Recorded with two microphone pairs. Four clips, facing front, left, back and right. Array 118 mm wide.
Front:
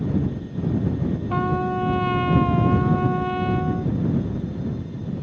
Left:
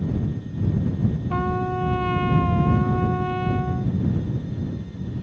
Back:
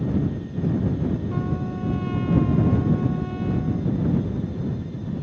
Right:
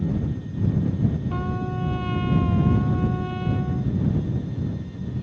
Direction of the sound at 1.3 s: 30° left.